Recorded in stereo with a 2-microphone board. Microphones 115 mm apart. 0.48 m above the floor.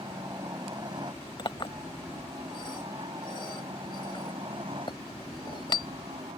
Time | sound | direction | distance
0.0 | a helicopter | 35° right (ahead or behind) | ?
1.4 | a clink | 45° left (ahead or behind) | ?